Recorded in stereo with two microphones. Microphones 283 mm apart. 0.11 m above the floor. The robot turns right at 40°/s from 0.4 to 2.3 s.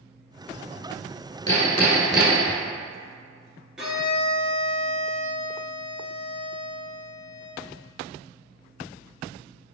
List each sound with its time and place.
1.5 s hammering: 160° left, 1.1 m; by 2.6 s 170° right, 1.1 m
3.8 s a violin: 5° right (ahead or behind), 1.1 m